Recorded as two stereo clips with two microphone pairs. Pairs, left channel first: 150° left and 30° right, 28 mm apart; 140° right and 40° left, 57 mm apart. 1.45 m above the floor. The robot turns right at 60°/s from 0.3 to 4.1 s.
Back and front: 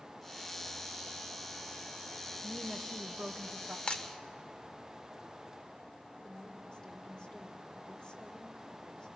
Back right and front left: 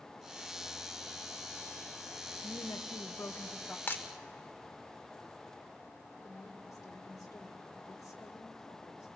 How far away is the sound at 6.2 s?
About 2.5 m.